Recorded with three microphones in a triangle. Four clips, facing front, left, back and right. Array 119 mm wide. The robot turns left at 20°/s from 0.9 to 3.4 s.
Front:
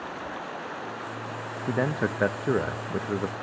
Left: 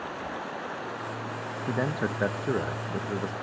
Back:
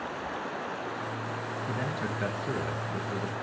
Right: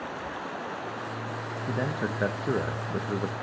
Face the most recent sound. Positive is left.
turn(degrees=-25)